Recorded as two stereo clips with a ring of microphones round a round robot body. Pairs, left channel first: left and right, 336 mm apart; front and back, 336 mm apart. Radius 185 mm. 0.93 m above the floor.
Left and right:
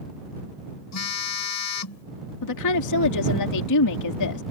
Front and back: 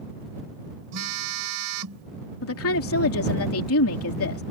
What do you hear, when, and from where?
0.9 s a phone buzzing: 130° left
2.4 s a woman speaking: 50° left